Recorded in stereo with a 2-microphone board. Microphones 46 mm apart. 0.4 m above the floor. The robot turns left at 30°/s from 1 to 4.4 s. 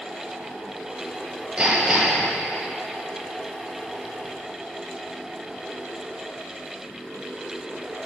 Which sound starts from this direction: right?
Hammering, at 1.6 s.